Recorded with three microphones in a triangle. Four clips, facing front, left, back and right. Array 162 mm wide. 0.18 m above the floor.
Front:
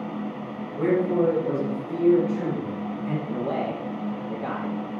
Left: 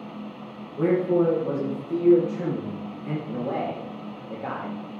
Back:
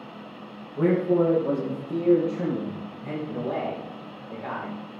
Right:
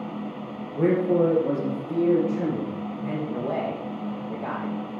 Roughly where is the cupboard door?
I don't hear a cupboard door.